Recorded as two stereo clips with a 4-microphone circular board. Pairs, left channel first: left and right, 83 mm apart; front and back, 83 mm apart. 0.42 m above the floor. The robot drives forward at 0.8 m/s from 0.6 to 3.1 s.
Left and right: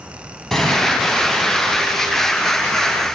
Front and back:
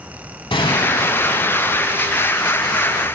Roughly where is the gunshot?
Ahead.